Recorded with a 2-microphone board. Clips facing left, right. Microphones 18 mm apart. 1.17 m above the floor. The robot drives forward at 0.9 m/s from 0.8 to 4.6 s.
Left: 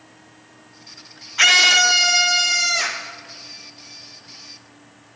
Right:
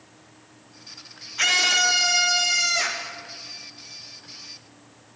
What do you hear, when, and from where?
1.4 s a scream: 25° left (ahead or behind), 0.6 m; by 3.1 s 10° left (ahead or behind), 1.8 m